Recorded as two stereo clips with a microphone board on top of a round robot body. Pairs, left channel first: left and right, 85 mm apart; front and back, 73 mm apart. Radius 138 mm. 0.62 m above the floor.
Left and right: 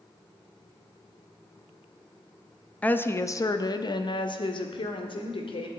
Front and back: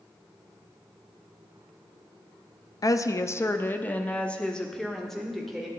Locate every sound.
2.8 s a woman speaking: 20° left, 0.9 m; by 5.7 s 90° left, 2 m